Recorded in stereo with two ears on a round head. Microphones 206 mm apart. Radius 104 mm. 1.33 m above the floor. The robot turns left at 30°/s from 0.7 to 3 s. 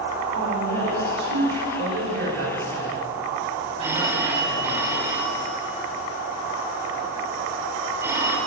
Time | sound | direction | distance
0.3 | a woman speaking | 65° right (ahead or behind) | 5 m
1.8 | a man speaking | 115° right | 7 m
3.8 | a phone ringing | 10° right (ahead or behind) | 3 m